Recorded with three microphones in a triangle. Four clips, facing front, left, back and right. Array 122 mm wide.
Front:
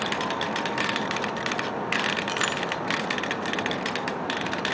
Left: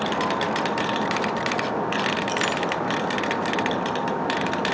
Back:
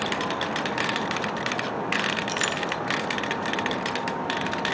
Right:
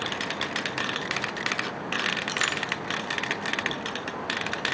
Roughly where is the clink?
Ahead.